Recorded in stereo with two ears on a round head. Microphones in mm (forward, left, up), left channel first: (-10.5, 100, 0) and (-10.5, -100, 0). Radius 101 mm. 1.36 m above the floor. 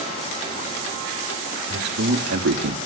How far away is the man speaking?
About 3 m.